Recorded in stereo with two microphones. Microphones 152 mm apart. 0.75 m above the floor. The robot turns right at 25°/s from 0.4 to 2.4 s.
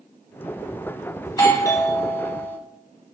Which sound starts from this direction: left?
A doorbell, at 1.2 s.